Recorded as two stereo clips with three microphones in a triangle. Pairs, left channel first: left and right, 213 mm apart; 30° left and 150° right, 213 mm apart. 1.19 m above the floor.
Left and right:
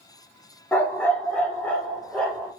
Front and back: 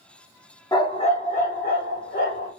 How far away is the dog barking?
About 0.7 m.